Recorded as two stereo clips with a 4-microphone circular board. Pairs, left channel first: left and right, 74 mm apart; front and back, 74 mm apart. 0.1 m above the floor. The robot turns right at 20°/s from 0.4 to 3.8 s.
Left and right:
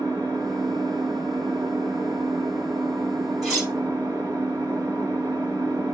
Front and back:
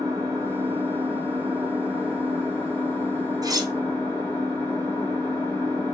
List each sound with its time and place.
0.0 s an engine running: 130° right, 1.8 m; by 6.0 s 60° right, 1.8 m
3.4 s cutlery clinking: straight behind, 1.5 m; by 3.7 s 175° right, 1.5 m